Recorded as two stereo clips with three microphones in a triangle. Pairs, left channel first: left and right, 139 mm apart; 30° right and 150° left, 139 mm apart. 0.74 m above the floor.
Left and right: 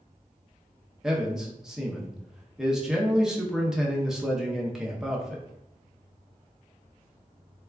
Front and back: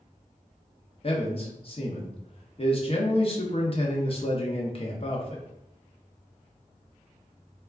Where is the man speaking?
5° right, 0.6 m.